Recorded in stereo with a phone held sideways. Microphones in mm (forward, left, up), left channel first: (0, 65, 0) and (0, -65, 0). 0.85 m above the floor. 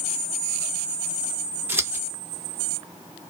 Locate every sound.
1.7 s scissors: 15° right (ahead or behind), 1.0 m